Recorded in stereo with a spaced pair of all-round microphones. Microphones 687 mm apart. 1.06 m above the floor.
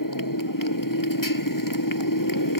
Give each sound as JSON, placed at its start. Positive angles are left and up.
{"t": 0.0, "sound": "a motorcycle", "side_deg": 30}